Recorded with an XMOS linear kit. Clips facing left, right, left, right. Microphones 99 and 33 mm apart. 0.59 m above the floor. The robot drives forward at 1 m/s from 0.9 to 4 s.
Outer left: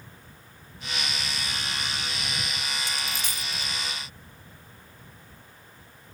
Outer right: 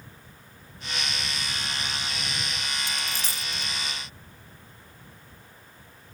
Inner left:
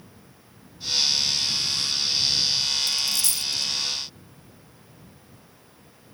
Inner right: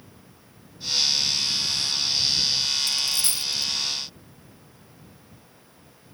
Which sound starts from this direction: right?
A dropped coin, at 2.9 s.